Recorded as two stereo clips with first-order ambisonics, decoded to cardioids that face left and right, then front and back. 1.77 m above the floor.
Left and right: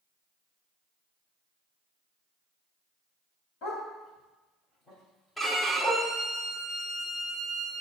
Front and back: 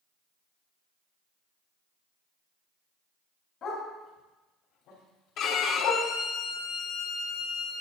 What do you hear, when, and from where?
3.6 s a dog barking: 55° left, 3 m; by 6.1 s straight ahead, 3.5 m
5.4 s a violin: 5° left, 1.0 m